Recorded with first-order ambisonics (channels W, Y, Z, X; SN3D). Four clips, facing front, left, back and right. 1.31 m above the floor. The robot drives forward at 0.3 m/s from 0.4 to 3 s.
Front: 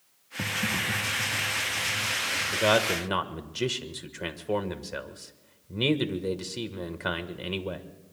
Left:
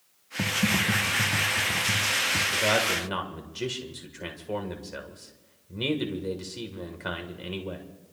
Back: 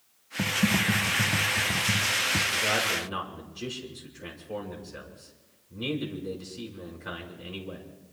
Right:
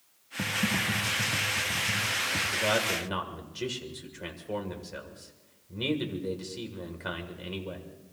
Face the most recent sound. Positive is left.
turn(degrees=10)